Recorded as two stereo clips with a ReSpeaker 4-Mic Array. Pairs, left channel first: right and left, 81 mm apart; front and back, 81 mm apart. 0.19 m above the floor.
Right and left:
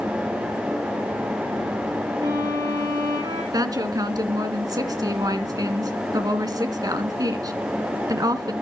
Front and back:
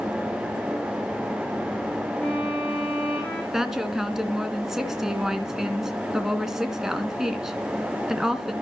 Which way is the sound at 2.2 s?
70° left.